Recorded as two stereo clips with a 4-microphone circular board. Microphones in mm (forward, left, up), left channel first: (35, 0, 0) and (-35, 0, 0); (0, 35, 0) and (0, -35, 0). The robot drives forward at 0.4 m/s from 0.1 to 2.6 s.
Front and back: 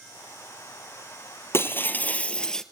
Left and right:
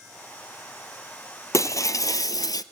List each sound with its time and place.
1.5 s breaking glass: 50° left, 0.9 m; by 2.6 s 80° left, 0.8 m